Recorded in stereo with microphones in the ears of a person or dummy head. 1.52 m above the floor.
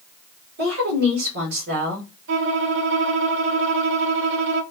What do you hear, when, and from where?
0.6 s a woman speaking: 60° right (ahead or behind), 1.7 m
2.3 s a violin: 70° right (ahead or behind), 0.8 m